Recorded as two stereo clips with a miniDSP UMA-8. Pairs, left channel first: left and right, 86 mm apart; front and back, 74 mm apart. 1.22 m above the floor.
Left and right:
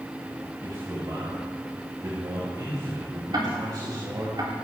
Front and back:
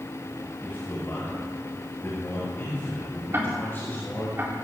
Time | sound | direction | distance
0.6 | a man speaking | 55° right | 5 m
3.3 | ticking | 120° right | 3.5 m